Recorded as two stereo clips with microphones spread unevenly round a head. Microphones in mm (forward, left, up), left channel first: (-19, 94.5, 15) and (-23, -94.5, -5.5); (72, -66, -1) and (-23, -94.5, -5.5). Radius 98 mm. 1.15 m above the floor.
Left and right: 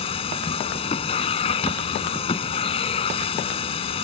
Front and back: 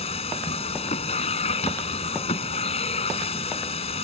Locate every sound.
0.0 s a machine running: 30° left